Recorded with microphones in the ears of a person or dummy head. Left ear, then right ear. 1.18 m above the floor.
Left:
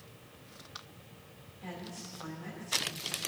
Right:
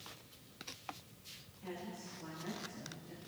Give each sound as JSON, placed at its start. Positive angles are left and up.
{"t": 1.6, "sound": "a woman speaking", "side_deg": 40, "distance_m": 3.5}